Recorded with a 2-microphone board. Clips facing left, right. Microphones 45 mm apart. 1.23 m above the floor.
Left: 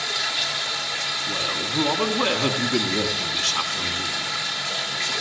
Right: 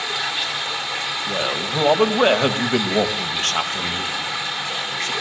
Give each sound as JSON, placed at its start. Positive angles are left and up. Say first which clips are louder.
{"t": 0.0, "sound": "running water", "louder": "right 2 dB", "side_deg": -25, "distance_m": 1.4}
{"t": 1.3, "sound": "a man speaking", "louder": "right 5 dB", "side_deg": -45, "distance_m": 1.8}